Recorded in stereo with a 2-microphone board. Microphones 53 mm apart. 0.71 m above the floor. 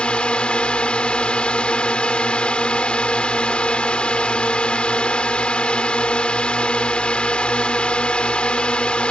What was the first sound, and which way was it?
A drone, 20° left (ahead or behind).